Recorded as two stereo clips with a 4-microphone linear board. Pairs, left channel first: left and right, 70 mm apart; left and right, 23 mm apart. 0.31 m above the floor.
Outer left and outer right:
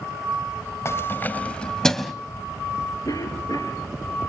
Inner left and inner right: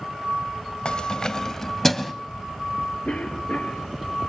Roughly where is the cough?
Left.